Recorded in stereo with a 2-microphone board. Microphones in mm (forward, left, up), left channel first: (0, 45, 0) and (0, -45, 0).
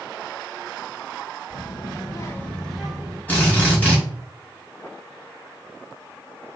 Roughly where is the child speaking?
Left.